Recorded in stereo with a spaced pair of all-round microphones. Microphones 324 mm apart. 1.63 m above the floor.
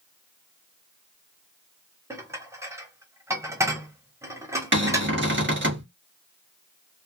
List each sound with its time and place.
2.1 s dishes clattering: 10° right (ahead or behind), 0.8 m
4.7 s a cupboard door: 35° right (ahead or behind), 1.2 m